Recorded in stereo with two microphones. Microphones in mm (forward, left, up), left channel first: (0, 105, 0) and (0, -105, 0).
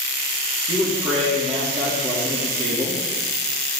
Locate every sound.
0.7 s a man speaking: 30° right (ahead or behind), 4.5 m